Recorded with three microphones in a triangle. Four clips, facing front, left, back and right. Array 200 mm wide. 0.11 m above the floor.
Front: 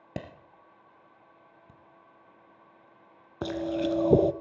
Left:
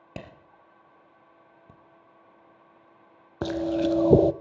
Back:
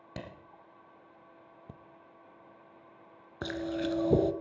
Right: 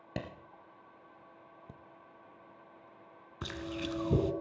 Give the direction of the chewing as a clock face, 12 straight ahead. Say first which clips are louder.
Left 14 dB, front 4 dB; 10 o'clock.